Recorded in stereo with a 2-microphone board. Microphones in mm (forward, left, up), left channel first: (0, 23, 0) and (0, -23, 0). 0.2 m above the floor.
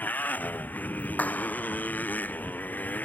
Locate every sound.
0.0 s a motorcycle: 40° left (ahead or behind)
1.2 s a clap: 35° left (ahead or behind)